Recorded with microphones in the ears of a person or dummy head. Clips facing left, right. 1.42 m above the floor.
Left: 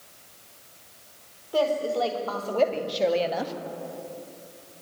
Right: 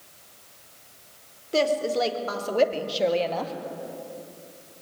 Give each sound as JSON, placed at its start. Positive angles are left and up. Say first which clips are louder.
{"t": 1.5, "sound": "a woman speaking", "louder": "right 1 dB", "side_deg": -35, "distance_m": 3.5}